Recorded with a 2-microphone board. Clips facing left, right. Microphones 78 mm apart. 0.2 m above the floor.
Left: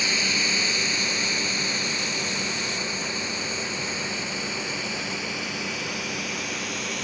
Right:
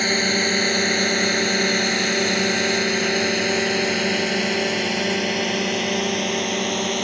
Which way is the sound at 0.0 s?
50° right (ahead or behind).